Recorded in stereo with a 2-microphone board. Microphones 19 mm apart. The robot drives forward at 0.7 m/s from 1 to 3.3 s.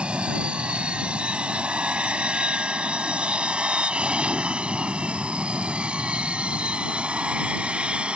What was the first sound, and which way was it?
An aircraft, 65° right (ahead or behind).